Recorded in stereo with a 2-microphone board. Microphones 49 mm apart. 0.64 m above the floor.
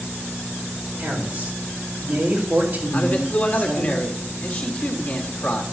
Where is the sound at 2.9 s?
35° left (ahead or behind), 1.5 m.